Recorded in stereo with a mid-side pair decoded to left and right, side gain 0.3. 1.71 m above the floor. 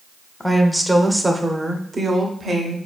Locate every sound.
0.4 s a woman speaking: 5° left, 1.0 m; by 2.8 s 60° right, 1.3 m